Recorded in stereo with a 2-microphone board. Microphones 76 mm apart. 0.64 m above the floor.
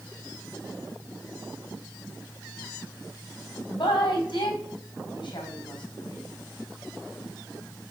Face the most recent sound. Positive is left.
turn(degrees=80)